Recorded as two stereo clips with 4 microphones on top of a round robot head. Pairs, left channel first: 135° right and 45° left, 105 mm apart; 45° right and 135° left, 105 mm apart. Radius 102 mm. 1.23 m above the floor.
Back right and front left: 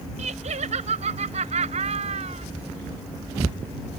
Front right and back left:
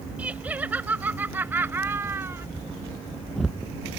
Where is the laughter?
60° left; by 2.5 s 65° left.